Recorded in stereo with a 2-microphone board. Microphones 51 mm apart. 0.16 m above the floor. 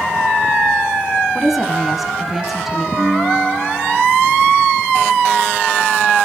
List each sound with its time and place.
1.4 s a woman speaking: 5° right (ahead or behind), 1.1 m
3.0 s a piano: 5° left (ahead or behind), 5.5 m